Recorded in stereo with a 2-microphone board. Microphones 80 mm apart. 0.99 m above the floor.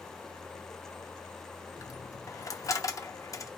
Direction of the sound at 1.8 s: 40° left (ahead or behind).